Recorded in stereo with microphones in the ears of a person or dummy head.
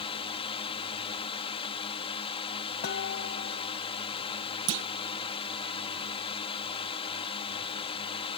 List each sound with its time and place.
0.0 s a drone: 30° left (ahead or behind)
2.8 s dishes clattering: 55° left (ahead or behind)
4.7 s a clunk: 70° right (ahead or behind)